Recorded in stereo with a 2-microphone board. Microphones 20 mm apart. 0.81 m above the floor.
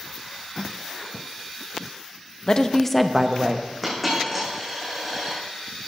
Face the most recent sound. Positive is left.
turn(degrees=0)  # may be behind; listen again after turning